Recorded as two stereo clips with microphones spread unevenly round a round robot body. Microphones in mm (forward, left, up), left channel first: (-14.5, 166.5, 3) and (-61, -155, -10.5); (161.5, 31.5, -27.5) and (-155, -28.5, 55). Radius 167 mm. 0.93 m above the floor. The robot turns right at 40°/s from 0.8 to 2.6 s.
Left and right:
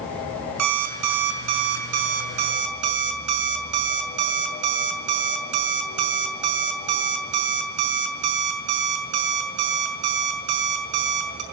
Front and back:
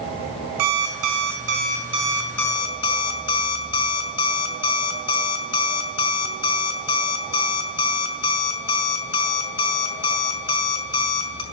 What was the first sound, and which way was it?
An alarm clock, 140° right.